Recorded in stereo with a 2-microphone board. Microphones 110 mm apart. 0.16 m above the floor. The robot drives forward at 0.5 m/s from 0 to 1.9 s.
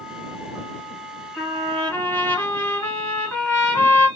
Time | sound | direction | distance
1.4 | a trumpet | 20° left (ahead or behind) | 1.8 m